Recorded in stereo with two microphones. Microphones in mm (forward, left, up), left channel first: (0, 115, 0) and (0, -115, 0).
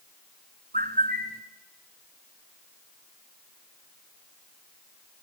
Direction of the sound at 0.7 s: 40° right (ahead or behind).